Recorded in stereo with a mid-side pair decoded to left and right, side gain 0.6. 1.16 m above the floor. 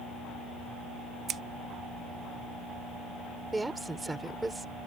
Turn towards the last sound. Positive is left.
turn(degrees=-15)